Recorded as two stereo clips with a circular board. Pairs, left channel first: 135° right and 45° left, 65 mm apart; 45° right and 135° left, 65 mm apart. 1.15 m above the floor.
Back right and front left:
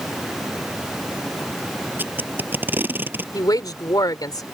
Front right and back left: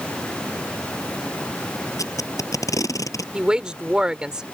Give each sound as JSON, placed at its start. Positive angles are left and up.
{"t": 2.0, "sound": "tape being pulled", "azimuth_deg": -15}
{"t": 3.3, "sound": "a woman speaking", "azimuth_deg": -145}